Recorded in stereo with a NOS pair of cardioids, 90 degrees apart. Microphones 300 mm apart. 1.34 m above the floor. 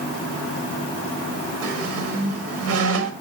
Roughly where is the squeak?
Ahead right.